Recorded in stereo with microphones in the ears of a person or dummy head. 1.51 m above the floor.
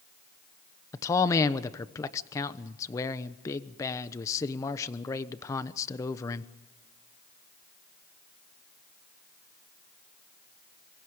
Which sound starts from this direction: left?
A man speaking, at 0.9 s.